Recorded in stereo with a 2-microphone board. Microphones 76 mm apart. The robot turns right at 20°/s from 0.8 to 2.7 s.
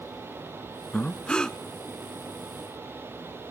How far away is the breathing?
About 0.6 m.